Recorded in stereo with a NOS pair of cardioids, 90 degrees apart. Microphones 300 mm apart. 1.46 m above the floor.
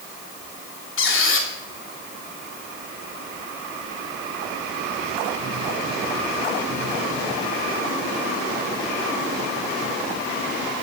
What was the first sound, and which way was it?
A squeak, 50° left.